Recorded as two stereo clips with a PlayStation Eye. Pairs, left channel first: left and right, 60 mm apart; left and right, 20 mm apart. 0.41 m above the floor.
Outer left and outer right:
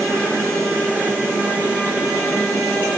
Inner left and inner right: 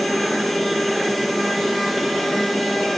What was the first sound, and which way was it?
Only background noise.